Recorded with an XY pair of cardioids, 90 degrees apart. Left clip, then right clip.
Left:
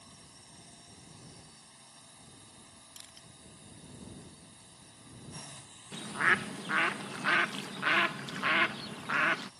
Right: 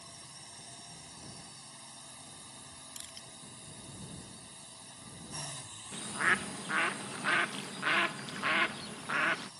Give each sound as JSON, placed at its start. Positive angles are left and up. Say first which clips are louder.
{"t": 0.0, "sound": "a drone", "louder": "right 5 dB", "azimuth_deg": -45}
{"t": 3.0, "sound": "crushing", "louder": "right 3 dB", "azimuth_deg": -45}
{"t": 5.9, "sound": "a bird", "louder": "left 2 dB", "azimuth_deg": 20}